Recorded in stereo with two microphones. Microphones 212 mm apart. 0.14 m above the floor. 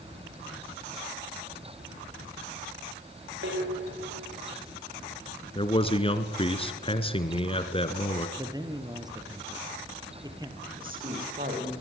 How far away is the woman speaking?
About 8 m.